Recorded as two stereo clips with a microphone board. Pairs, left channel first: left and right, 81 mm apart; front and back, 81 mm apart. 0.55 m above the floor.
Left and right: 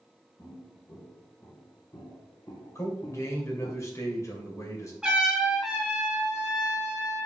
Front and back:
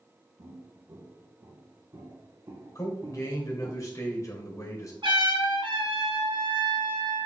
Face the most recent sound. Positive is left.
turn(degrees=-175)